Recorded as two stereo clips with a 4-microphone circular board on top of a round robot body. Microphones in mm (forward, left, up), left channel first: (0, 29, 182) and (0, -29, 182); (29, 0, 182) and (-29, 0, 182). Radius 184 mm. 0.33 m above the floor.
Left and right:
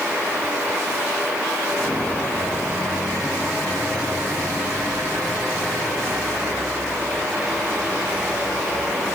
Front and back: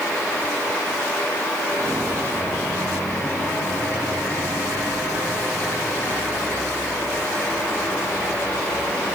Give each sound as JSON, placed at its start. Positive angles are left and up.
{"t": 1.7, "sound": "footsteps", "azimuth_deg": 145, "distance_m": 5.0}